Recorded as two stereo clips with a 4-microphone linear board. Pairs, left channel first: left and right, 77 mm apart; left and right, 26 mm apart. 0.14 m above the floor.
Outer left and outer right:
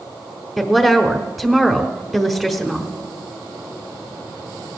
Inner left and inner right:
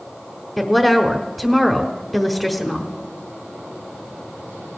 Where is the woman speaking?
5° right (ahead or behind), 1.2 m.